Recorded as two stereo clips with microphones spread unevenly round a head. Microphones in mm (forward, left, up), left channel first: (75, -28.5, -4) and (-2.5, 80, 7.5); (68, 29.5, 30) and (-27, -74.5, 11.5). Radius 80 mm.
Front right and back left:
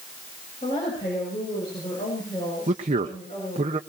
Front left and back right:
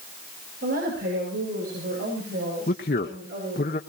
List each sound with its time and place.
0.6 s a woman speaking: 115° right, 7.5 m; by 3.7 s 120° right, 6 m
2.7 s a man speaking: 85° left, 1.1 m